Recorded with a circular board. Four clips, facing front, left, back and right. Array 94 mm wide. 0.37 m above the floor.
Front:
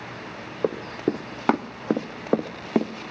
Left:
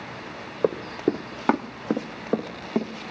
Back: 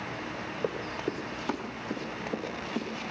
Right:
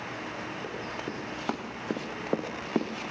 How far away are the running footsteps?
About 1.2 m.